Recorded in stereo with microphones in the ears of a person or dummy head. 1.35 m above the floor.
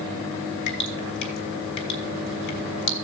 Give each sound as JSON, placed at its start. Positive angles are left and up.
{"t": 0.7, "sound": "dripping", "side_deg": 60, "distance_m": 1.6}